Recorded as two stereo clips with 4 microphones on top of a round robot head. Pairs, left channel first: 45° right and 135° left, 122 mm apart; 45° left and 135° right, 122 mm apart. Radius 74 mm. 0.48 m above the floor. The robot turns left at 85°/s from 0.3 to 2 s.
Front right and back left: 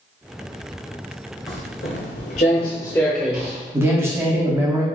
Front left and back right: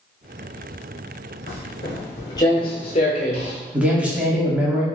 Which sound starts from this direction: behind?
A man speaking, at 3.7 s.